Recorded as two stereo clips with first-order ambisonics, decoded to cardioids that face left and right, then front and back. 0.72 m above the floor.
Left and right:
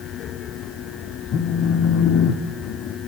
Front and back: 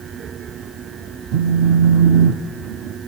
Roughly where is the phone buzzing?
Behind left.